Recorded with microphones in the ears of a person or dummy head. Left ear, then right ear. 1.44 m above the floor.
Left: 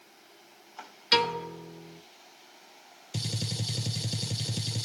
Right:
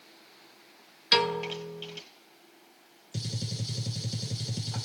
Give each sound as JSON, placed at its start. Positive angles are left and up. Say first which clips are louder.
{"t": 1.1, "sound": "a piano", "louder": "even", "side_deg": -10, "distance_m": 1.0}
{"t": 3.1, "sound": "a gunshot", "louder": "left 3 dB", "side_deg": 30, "distance_m": 0.5}